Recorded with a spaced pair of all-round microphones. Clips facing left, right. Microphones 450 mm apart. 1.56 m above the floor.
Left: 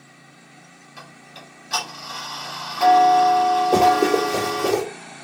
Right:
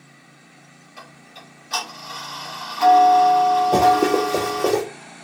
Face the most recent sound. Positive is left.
turn(degrees=5)  # may be behind; listen again after turning